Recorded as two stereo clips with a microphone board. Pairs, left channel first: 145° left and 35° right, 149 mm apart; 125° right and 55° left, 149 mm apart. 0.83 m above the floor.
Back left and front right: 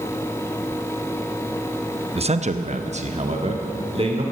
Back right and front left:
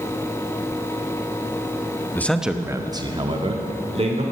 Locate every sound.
2.1 s a man speaking: 55° right, 0.8 m; by 4.2 s 15° left, 2.5 m